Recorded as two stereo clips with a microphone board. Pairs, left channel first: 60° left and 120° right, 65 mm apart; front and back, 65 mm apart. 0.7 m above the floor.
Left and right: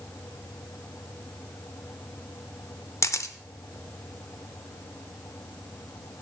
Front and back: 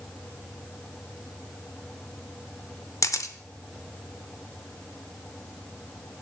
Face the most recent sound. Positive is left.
turn(degrees=25)